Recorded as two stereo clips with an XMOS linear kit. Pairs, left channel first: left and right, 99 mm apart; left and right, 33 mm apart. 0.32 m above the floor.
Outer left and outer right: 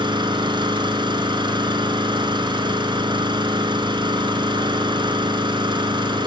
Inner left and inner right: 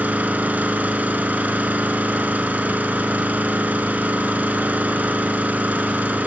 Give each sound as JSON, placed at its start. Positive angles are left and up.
{"t": 0.0, "sound": "an engine running", "side_deg": -50, "distance_m": 2.5}